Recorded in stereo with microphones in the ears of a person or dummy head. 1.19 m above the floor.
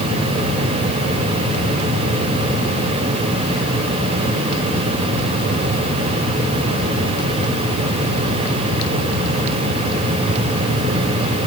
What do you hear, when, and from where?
Only background noise.